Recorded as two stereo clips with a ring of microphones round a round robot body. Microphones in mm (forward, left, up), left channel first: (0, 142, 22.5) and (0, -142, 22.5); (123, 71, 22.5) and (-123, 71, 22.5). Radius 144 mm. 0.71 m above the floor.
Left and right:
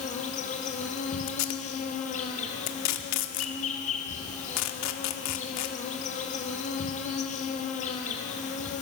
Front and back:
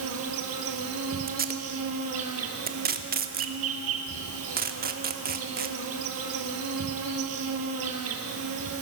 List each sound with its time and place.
0.0 s an insect: 155° left, 1.7 m
1.3 s tape being pulled: 125° left, 1.1 m